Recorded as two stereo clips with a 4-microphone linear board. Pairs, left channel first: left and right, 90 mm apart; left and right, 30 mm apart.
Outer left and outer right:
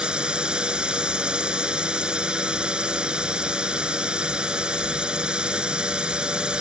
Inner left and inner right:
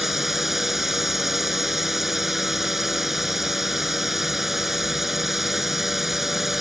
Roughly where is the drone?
Centre.